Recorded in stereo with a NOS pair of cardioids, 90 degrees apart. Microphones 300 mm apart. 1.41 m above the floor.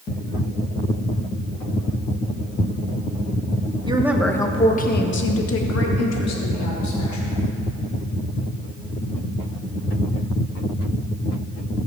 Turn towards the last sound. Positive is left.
turn(degrees=70)